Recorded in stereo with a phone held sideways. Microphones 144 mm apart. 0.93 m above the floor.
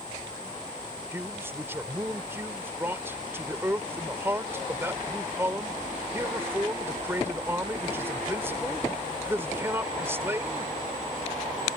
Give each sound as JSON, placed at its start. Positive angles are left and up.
{"t": 1.1, "sound": "a man speaking", "side_deg": -15}